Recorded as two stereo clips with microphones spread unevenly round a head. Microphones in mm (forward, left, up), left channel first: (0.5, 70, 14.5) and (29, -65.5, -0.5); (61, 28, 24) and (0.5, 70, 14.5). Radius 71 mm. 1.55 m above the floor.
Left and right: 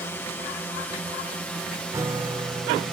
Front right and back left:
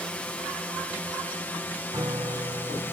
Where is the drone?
35° left; by 2.9 s 15° left.